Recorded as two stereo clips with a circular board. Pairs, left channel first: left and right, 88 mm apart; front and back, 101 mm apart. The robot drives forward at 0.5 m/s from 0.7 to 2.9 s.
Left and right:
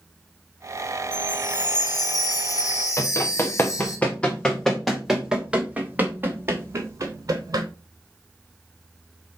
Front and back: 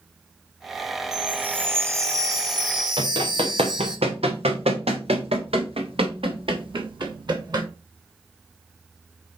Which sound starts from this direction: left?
A chime, at 1.1 s.